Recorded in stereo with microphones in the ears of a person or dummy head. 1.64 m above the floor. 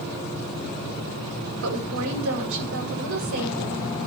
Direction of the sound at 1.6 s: 75° right (ahead or behind).